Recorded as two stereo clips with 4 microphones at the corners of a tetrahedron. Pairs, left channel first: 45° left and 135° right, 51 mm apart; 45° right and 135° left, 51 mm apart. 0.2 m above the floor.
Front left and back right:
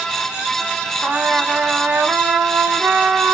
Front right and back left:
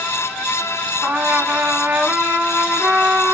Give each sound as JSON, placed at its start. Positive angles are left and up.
{"t": 1.0, "sound": "a trumpet", "azimuth_deg": -175, "distance_m": 0.6}